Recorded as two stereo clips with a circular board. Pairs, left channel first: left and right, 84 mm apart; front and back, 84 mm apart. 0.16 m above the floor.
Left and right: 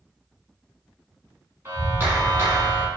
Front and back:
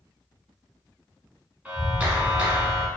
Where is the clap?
125° right, 1.0 m.